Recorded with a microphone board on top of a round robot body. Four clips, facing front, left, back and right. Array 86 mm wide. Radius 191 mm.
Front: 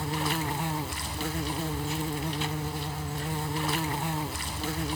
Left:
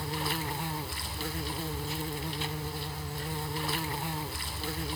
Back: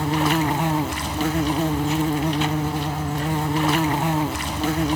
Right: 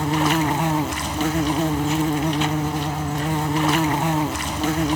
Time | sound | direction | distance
0.0 | an insect | 125° right | ?